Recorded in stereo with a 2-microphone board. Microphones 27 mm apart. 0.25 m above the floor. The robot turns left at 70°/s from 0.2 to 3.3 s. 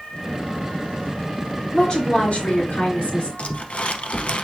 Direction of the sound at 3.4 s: 55° left (ahead or behind).